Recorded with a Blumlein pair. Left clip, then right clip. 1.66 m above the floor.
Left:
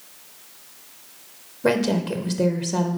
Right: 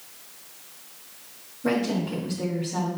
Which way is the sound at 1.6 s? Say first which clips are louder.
Left 5 dB; 30° left.